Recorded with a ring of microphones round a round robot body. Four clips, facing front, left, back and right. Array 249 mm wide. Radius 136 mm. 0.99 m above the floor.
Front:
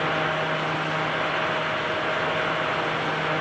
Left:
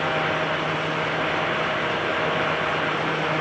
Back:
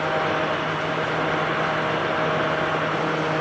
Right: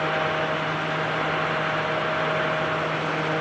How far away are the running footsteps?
I don't hear running footsteps.